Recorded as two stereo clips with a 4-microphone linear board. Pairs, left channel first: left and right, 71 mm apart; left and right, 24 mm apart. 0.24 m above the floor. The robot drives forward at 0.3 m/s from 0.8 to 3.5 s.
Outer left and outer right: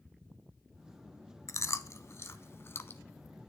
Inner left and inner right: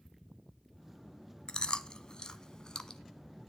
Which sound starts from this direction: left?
Chewing, at 1.5 s.